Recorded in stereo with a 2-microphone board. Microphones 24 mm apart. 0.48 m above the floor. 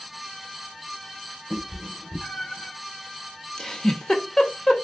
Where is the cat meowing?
15° left (ahead or behind), 1.3 m; by 2.7 s 45° left (ahead or behind), 0.7 m.